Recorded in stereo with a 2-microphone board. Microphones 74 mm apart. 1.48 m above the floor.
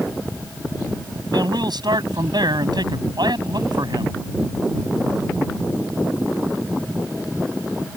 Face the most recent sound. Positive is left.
turn(degrees=-75)  # may be behind; listen again after turning